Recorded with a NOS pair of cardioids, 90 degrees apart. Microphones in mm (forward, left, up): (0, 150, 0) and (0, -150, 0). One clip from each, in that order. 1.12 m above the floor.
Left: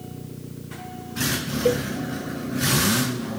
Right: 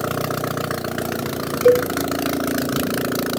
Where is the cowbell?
20° right, 0.8 m.